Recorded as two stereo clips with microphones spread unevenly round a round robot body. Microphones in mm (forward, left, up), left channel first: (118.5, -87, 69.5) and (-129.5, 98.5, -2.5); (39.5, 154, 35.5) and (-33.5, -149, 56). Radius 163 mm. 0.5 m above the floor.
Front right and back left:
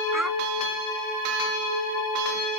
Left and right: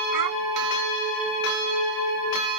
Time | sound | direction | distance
0.1 | a child speaking | 130° right | ?